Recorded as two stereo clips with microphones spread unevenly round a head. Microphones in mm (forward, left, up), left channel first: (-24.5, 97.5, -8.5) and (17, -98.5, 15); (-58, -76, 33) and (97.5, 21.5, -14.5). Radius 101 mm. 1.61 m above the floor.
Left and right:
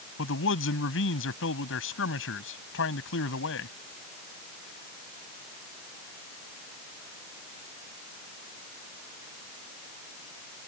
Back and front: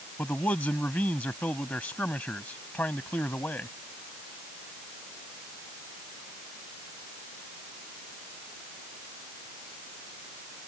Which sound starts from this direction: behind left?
A man speaking, at 0.2 s.